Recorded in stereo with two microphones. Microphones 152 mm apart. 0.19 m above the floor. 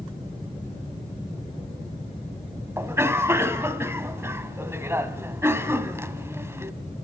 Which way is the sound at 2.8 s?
15° right (ahead or behind).